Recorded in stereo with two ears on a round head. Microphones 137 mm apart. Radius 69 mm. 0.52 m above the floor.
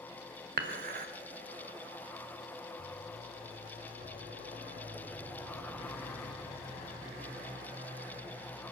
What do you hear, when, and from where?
0.6 s dishes clattering: 55° right (ahead or behind), 1.5 m